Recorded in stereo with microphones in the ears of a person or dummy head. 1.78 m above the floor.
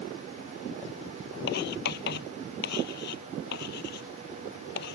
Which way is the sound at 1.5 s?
55° left (ahead or behind).